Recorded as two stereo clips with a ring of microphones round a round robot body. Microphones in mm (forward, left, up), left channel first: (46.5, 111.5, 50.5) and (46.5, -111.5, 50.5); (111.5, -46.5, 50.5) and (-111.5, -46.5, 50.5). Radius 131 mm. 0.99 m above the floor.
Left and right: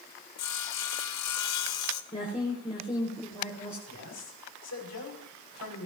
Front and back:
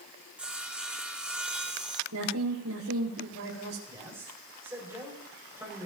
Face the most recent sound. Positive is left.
turn(degrees=100)